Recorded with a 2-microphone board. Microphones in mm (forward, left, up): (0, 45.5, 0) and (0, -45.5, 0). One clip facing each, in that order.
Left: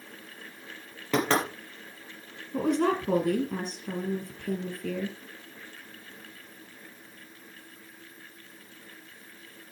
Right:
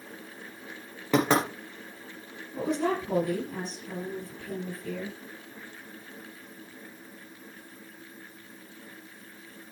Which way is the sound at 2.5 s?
70° left (ahead or behind).